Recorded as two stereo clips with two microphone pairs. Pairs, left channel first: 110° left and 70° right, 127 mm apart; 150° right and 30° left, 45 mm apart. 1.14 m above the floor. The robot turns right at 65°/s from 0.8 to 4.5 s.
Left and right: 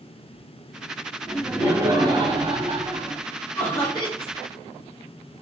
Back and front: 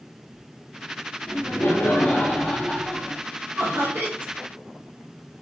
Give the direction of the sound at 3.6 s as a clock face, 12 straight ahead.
11 o'clock.